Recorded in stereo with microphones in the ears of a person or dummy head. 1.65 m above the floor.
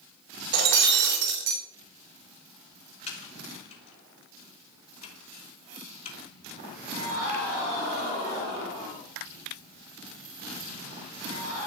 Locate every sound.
0.5 s breaking glass: 70° right (ahead or behind), 3.5 m
3.1 s typing on a keyboard: 40° left (ahead or behind), 4.5 m